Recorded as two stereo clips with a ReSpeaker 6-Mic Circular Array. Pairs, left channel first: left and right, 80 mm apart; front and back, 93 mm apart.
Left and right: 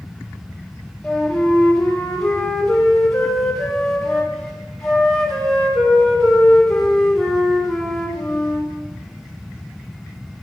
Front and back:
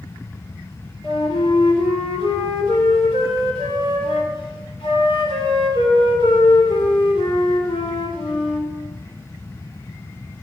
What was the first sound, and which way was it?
A flute, 5° left.